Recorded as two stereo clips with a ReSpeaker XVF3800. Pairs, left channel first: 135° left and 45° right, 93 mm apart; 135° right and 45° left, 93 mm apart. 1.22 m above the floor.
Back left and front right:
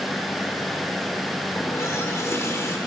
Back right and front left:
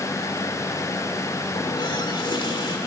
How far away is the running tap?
About 2 m.